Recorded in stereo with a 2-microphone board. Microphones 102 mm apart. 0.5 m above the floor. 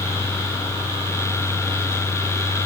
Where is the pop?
No pop in this recording.